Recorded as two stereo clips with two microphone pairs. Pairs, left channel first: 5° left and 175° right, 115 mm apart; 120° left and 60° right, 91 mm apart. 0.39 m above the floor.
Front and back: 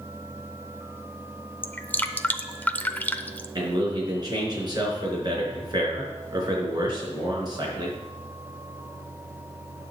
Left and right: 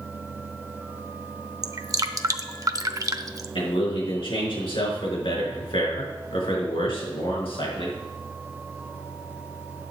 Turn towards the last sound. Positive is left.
turn(degrees=135)